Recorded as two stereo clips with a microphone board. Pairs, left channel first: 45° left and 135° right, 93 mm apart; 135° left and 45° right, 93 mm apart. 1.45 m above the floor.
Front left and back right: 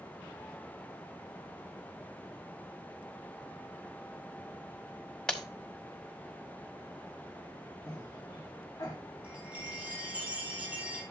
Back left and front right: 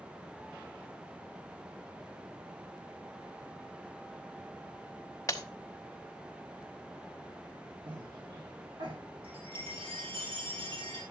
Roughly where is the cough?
Ahead.